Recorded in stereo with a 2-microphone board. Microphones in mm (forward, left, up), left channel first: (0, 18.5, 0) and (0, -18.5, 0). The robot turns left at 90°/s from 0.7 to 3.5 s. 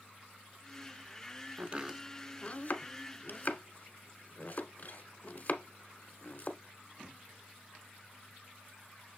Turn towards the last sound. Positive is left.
turn(degrees=50)  # may be behind; listen again after turning